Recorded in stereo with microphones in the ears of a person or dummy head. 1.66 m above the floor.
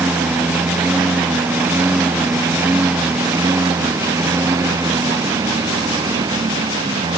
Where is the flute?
I don't hear a flute.